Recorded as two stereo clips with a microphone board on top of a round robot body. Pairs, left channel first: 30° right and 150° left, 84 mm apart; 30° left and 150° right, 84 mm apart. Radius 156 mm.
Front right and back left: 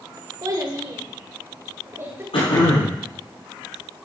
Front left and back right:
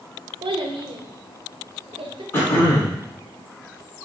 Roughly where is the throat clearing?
Ahead right.